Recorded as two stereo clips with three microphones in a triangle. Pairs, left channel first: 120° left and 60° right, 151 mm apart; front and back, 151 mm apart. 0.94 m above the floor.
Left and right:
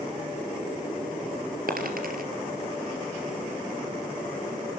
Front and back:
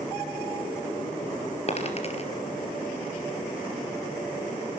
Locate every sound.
1.7 s a dropped coin: 45° right, 3.5 m